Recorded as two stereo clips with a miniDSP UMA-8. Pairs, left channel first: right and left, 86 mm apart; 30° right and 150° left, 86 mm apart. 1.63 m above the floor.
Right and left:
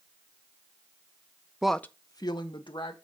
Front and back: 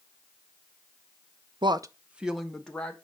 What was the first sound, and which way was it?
A woman speaking, 170° left.